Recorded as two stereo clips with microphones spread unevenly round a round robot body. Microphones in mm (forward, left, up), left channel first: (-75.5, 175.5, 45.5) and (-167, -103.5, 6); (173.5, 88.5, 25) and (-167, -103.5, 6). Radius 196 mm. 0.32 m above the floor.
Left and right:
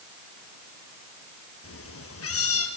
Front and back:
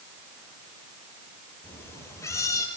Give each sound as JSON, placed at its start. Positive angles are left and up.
{"t": 1.6, "sound": "a cat meowing", "azimuth_deg": 115, "distance_m": 5.0}